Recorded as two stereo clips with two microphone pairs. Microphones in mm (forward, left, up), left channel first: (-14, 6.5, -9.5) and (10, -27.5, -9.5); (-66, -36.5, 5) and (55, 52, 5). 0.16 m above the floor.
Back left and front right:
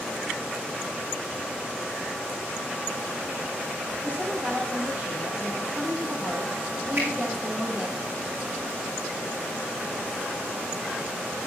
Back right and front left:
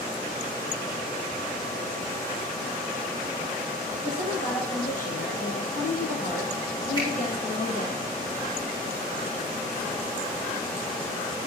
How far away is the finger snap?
About 7 m.